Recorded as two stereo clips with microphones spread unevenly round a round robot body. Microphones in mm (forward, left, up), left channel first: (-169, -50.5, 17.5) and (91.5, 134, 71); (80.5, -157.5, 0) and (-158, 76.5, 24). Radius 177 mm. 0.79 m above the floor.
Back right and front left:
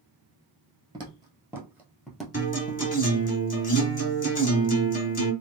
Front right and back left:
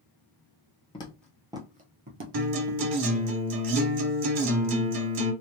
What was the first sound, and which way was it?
Footsteps, 20° left.